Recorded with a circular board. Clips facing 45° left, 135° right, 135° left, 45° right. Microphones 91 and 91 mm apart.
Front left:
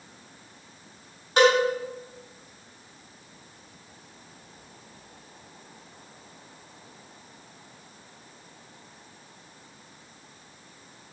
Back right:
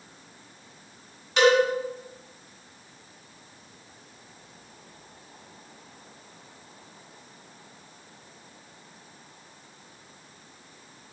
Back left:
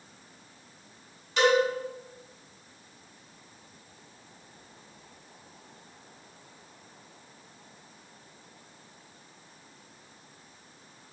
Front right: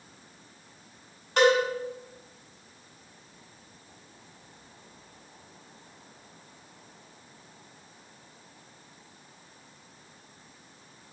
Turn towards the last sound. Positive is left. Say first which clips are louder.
# even, front right 2 dB
turn(degrees=0)